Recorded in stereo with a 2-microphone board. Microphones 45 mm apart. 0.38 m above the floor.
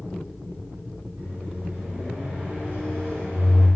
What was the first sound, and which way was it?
A microwave, 50° right (ahead or behind).